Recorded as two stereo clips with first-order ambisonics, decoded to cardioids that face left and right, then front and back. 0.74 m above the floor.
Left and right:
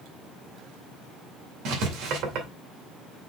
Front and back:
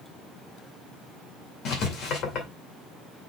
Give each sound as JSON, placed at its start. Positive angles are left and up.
{"t": 1.6, "sound": "writing", "azimuth_deg": -50, "distance_m": 2.0}